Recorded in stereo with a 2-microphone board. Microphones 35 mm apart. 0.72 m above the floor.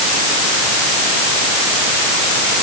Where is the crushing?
No crushing in this recording.